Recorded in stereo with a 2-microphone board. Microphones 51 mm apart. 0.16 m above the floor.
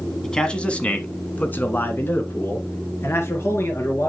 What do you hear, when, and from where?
0.2 s a man speaking: 10° left (ahead or behind), 1.2 m; by 4.1 s 60° left (ahead or behind), 2.5 m